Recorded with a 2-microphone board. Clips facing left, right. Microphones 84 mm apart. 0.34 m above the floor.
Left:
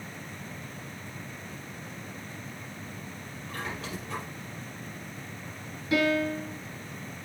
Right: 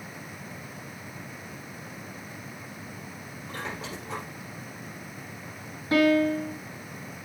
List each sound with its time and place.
3.5 s a squeak: 30° right (ahead or behind), 4.5 m
5.9 s a piano: 40° right (ahead or behind), 2 m